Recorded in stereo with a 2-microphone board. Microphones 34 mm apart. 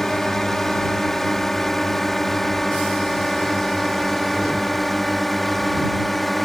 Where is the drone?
10° left (ahead or behind); by 6.5 s 5° left (ahead or behind).